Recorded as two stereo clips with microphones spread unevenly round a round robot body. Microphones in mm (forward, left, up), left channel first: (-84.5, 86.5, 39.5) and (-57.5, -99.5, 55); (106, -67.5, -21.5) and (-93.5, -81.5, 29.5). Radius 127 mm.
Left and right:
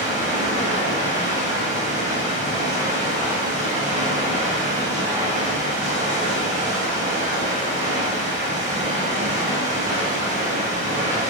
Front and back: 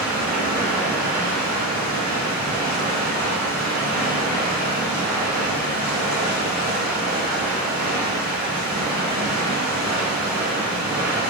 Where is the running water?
130° right, 1.4 m.